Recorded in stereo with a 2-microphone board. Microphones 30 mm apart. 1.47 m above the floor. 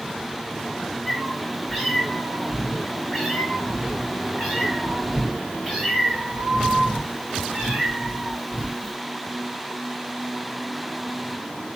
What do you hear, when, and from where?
1.1 s a cat meowing: 10° right (ahead or behind), 2 m